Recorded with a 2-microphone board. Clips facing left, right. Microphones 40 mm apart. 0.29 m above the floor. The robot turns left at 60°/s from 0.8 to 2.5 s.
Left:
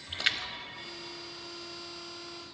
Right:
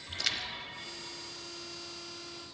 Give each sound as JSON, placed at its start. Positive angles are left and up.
{"t": 0.1, "sound": "a splash", "side_deg": 35, "distance_m": 0.7}